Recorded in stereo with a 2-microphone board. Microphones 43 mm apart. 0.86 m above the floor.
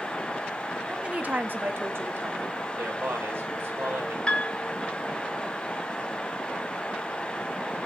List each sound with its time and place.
0.9 s a woman speaking: 15° right (ahead or behind), 1.1 m; by 2.6 s 75° right (ahead or behind), 3 m
2.8 s a man speaking: 70° right (ahead or behind), 4 m
4.3 s a piano: 25° left (ahead or behind), 1.6 m